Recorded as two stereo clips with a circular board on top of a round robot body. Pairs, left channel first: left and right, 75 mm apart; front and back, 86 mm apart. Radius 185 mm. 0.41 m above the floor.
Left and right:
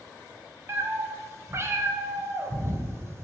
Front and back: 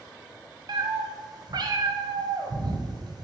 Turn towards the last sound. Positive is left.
turn(degrees=-145)